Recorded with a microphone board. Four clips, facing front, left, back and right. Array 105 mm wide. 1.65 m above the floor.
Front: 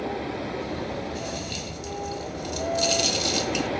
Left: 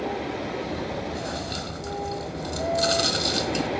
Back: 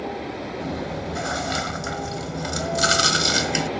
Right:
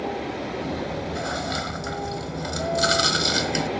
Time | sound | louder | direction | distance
0.6 | chewing | right 1 dB, back 2 dB | 155° right | ?